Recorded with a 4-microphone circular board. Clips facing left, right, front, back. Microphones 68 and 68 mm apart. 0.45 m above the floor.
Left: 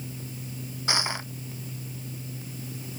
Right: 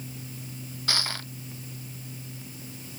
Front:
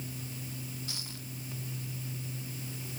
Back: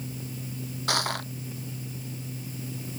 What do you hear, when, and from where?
0.9 s crushing: 160° left